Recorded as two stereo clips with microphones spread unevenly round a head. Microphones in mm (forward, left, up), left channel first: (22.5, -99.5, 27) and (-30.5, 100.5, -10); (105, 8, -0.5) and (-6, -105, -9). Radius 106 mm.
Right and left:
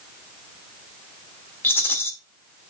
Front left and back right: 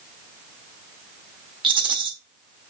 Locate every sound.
1.6 s a rattle: 120° right, 1.1 m